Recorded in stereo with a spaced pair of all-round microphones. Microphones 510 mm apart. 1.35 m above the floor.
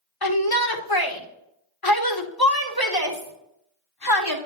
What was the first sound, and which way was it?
A shout, 45° left (ahead or behind).